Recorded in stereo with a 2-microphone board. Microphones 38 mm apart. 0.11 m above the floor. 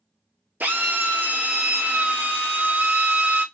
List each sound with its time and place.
0.6 s a drill: 55° right (ahead or behind), 0.8 m